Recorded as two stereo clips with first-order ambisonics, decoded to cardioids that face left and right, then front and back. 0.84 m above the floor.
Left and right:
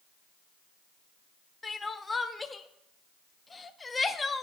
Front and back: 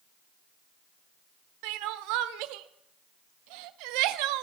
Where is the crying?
170° left, 0.6 m.